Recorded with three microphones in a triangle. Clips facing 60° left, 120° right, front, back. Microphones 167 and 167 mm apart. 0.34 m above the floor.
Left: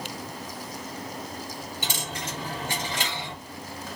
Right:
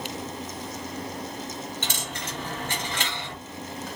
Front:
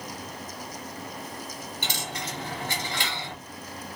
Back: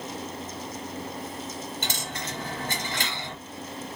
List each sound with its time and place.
1.8 s a dropped coin: 140° left, 2.5 m